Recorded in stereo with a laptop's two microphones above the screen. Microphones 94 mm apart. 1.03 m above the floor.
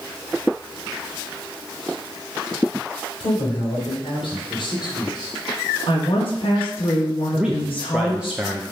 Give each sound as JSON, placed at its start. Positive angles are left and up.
{"t": 3.2, "sound": "a man speaking", "side_deg": 75, "distance_m": 3.5}
{"t": 5.9, "sound": "a woman speaking", "side_deg": 70, "distance_m": 1.4}
{"t": 7.3, "sound": "a man speaking", "side_deg": -10, "distance_m": 0.9}